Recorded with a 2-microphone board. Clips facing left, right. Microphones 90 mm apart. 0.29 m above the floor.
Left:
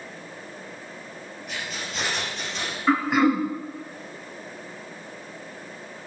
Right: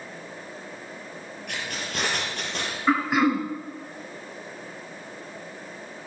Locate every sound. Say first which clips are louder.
1.5 s keys jangling: right 1 dB; 60° right (ahead or behind), 4 m; by 2.8 s 55° right (ahead or behind), 4.5 m
2.9 s throat clearing: left 1 dB; centre (ahead or behind), 2.5 m